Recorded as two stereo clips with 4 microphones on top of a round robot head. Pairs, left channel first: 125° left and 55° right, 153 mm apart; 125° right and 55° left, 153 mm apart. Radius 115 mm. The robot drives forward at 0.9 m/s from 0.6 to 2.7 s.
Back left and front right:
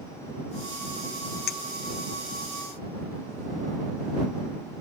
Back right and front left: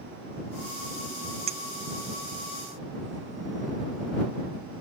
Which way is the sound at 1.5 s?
105° left.